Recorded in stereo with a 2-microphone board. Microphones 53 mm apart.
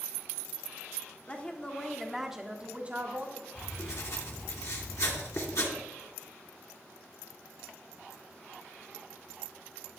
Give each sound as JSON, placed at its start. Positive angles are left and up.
{"t": 1.3, "sound": "a woman speaking", "side_deg": 25, "distance_m": 1.3}
{"t": 3.5, "sound": "writing", "side_deg": 70, "distance_m": 3.0}